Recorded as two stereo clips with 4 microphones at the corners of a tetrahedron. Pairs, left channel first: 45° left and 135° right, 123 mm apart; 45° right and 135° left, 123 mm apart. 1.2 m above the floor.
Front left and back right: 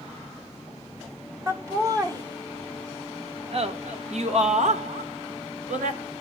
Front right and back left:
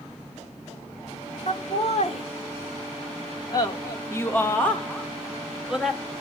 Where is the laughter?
70° right, 2.5 m; by 6.0 s 145° right, 2.5 m.